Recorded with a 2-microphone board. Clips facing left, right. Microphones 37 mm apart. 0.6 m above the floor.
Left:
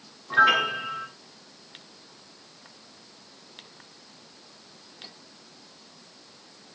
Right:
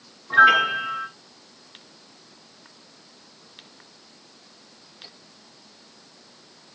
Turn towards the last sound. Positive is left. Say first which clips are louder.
# right 5 dB
turn(degrees=-5)  # may be behind; listen again after turning